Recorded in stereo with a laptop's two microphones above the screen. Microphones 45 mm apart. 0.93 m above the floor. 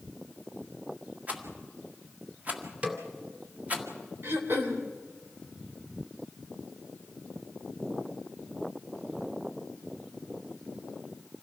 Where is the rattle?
35° right (ahead or behind), 1.8 m.